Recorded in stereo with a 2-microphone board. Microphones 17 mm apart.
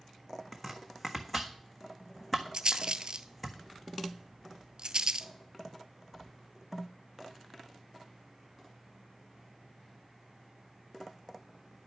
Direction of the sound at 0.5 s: 10° left (ahead or behind).